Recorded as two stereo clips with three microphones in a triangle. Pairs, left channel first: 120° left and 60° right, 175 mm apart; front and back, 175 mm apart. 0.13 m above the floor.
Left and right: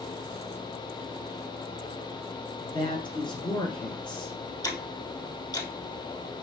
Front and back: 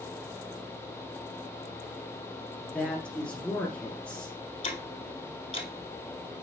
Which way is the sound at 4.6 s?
55° left.